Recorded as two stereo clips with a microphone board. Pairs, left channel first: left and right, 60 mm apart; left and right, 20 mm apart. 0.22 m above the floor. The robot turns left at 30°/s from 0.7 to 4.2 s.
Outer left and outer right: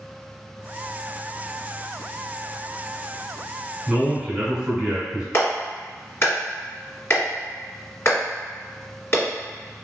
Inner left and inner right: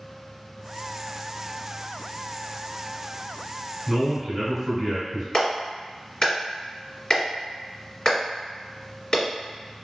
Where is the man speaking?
15° right (ahead or behind), 1.1 m; by 5.2 s 10° right (ahead or behind), 1.1 m.